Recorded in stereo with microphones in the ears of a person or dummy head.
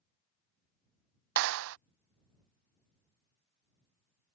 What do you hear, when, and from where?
1.4 s a clap: 65° right (ahead or behind)